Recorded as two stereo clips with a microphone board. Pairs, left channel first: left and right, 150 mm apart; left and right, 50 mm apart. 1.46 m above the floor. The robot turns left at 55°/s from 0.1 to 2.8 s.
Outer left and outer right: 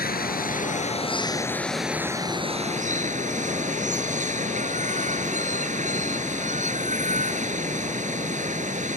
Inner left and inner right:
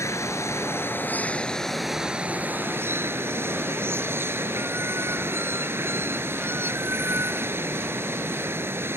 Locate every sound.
0.0 s running water: 90° left; by 9.0 s 55° right